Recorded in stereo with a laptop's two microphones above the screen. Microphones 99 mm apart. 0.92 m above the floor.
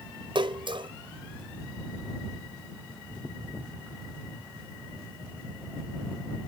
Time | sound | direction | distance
0.3 | a splash | 60° right (ahead or behind) | ?